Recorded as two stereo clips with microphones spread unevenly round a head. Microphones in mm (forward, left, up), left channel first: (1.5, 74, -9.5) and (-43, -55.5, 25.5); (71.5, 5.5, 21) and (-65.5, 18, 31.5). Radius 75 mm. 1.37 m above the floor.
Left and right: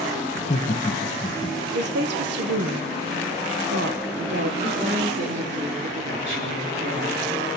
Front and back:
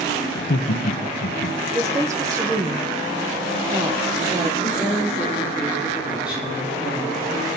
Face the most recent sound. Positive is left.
turn(degrees=-105)